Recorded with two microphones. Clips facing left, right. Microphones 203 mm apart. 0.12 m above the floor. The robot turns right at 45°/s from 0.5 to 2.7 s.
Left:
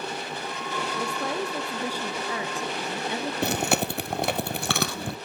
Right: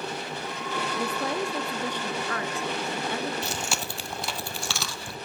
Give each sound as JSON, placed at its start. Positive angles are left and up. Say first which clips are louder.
{"t": 0.9, "sound": "a woman speaking", "louder": "right 1 dB", "side_deg": -5, "distance_m": 1.1}
{"t": 3.4, "sound": "chewing", "louder": "left 8 dB", "side_deg": 60, "distance_m": 1.1}